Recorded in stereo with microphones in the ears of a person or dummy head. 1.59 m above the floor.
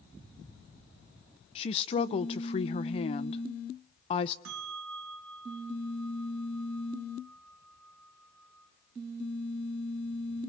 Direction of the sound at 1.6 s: 40° left (ahead or behind).